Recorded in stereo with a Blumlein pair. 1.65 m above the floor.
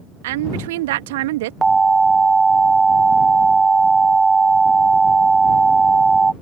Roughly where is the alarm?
Ahead.